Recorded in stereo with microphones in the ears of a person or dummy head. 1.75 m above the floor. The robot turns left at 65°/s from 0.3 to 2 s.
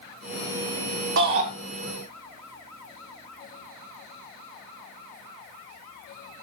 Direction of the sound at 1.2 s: 60° right (ahead or behind).